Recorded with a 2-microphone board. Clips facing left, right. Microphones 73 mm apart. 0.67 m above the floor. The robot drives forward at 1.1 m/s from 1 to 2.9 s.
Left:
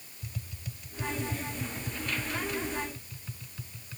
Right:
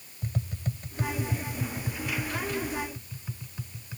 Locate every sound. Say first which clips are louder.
0.2 s tapping: right 9 dB; 45° right (ahead or behind); by 4.0 s 20° right (ahead or behind)